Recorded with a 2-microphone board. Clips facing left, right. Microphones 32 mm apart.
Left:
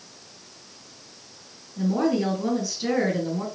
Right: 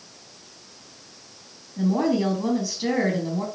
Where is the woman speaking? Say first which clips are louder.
Right 1 dB; 25° right (ahead or behind), 3.5 m.